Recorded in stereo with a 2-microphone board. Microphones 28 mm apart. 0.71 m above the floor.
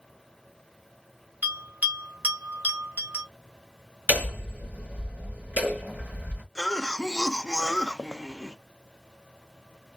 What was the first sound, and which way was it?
A bell, 85° right.